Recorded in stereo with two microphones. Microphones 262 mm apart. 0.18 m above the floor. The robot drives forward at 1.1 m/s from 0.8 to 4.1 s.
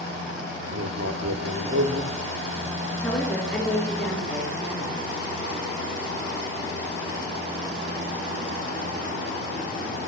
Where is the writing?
75° right (ahead or behind), 2.5 m; by 2.7 s 40° right (ahead or behind), 3.5 m.